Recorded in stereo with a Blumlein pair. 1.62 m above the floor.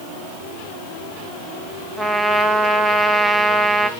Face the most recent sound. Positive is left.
turn(degrees=0)